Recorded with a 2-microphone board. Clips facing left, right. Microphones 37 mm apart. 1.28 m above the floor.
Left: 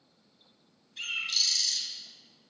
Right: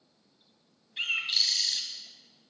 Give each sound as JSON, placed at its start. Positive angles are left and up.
{"t": 1.0, "sound": "a bird", "side_deg": -35, "distance_m": 1.3}